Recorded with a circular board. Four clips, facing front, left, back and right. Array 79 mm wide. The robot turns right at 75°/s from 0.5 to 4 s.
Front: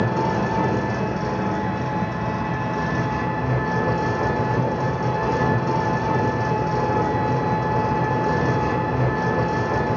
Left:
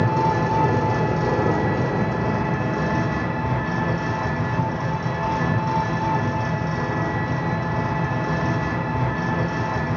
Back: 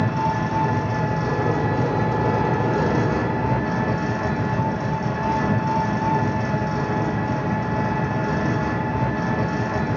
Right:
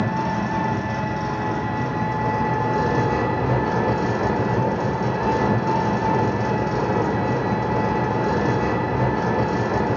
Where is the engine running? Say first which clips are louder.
Left 3 dB, front 1 dB; 30° left, 1.7 m; by 10.0 s 65° right, 1.7 m.